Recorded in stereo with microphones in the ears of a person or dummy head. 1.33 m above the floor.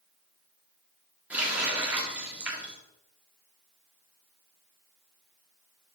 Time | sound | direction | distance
1.3 | a running tap | centre (ahead or behind) | 1.6 m